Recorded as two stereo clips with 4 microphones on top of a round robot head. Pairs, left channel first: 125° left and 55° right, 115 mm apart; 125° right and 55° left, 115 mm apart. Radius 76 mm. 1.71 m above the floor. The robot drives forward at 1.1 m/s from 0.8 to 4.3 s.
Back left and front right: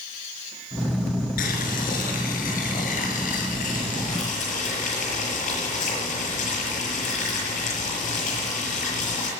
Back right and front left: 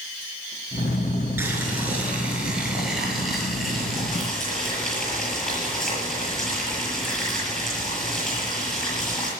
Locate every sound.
1.4 s boiling: 120° left, 5 m; by 9.3 s 145° left, 7 m